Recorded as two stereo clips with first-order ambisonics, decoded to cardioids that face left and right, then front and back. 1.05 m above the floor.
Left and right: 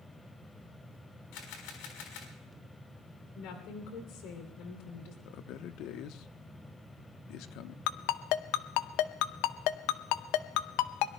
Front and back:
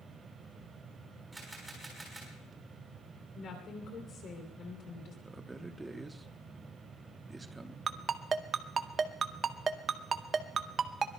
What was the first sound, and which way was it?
A camera shutter, 100° left.